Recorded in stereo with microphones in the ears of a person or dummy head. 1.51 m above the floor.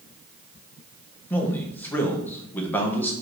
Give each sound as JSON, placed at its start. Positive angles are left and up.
{"t": 1.3, "sound": "a man speaking", "side_deg": 10, "distance_m": 0.7}